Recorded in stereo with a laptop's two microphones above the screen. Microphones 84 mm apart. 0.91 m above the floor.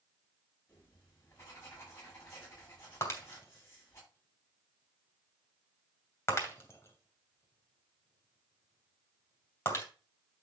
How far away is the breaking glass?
About 3 m.